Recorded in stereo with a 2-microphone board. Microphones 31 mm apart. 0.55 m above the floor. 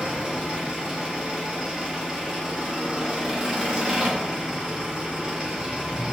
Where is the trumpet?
No trumpet in this recording.